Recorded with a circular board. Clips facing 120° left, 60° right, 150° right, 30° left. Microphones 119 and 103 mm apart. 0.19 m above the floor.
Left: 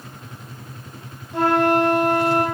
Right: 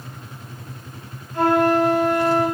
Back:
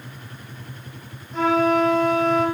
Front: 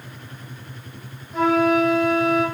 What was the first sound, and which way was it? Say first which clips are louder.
A flute: right 1 dB, front 1 dB; 115° left.